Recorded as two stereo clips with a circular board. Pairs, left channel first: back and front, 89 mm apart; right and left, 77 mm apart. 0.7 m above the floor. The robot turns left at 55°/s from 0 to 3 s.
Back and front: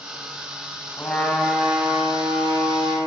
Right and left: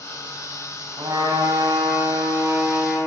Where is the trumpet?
115° left, 2.0 m; by 3.0 s 5° left, 2.0 m.